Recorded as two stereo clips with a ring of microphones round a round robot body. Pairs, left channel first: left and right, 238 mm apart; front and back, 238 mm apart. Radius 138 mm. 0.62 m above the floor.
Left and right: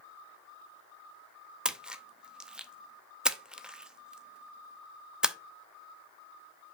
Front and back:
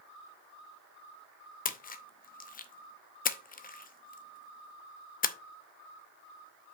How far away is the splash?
About 0.7 m.